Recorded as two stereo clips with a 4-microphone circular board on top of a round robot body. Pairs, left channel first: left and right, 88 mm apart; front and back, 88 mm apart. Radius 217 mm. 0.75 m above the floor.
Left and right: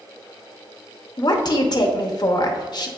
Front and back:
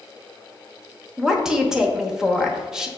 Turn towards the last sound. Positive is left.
turn(degrees=95)